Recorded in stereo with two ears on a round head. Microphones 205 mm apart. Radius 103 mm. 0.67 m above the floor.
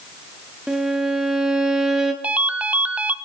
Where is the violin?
5° right (ahead or behind), 1.4 m.